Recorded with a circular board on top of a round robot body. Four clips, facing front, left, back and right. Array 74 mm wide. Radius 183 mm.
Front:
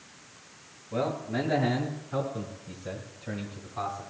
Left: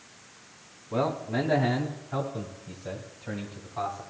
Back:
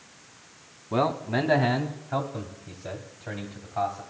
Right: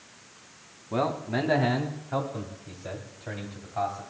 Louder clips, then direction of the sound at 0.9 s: Even, back 5 dB; 165° right.